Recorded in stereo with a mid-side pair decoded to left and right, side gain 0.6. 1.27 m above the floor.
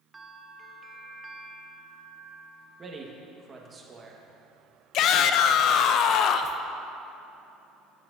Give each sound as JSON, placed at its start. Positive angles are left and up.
{"t": 0.1, "sound": "a bell", "azimuth_deg": -20, "distance_m": 0.8}
{"t": 2.8, "sound": "a man speaking", "azimuth_deg": -30, "distance_m": 1.6}
{"t": 4.9, "sound": "a shout", "azimuth_deg": 60, "distance_m": 0.6}